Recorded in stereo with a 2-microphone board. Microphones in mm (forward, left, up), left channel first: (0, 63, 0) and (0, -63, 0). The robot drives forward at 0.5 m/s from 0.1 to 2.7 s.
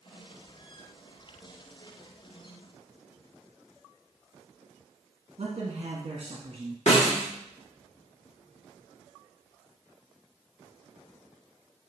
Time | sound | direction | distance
5.4 | a man speaking | 50° right (ahead or behind) | 1.0 m
6.9 | a snare drum | 65° left (ahead or behind) | 1.5 m